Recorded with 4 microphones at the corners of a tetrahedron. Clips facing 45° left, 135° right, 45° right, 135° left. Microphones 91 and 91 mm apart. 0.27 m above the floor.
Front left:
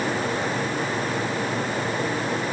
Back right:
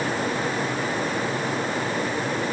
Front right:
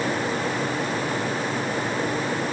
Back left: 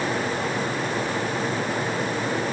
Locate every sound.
Only background noise.